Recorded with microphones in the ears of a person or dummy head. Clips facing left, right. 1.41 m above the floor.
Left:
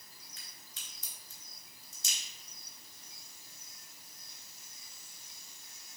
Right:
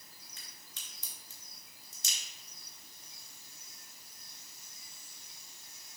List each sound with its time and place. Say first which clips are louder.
0.4 s a crack: even; 75° right (ahead or behind), 3.5 m